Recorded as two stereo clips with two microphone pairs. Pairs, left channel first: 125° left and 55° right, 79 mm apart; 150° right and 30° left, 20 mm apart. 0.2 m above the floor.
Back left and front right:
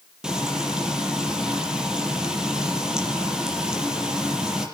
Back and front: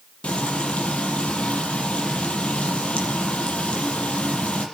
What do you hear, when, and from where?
0.2 s frying: 135° right, 6 m